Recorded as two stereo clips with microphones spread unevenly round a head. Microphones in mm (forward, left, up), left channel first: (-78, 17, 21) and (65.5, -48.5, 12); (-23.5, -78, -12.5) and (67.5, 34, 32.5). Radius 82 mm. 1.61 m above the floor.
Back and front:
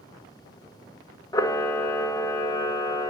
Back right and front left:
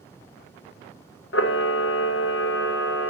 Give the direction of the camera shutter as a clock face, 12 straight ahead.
5 o'clock.